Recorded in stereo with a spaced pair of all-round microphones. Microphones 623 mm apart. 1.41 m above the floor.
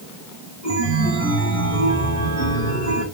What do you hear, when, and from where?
0.6 s a chime: 60° left (ahead or behind), 2.5 m